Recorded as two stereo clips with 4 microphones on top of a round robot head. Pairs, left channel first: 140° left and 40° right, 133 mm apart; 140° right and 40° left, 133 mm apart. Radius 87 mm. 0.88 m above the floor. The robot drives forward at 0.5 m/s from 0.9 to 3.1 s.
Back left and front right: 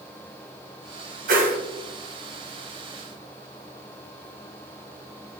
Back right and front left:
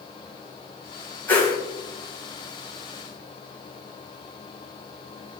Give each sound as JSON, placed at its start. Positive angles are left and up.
{"t": 1.3, "sound": "a whoosh", "azimuth_deg": -60, "distance_m": 1.4}